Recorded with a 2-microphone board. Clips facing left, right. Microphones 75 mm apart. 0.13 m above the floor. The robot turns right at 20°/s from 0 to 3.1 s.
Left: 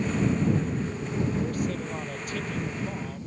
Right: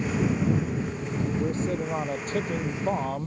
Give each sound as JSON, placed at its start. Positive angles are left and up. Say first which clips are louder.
{"t": 1.4, "sound": "a man speaking", "louder": "right 2 dB", "azimuth_deg": -160}